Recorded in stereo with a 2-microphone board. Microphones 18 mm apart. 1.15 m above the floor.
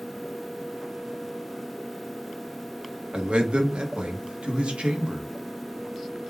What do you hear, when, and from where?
3.1 s a man speaking: 70° right (ahead or behind), 1.3 m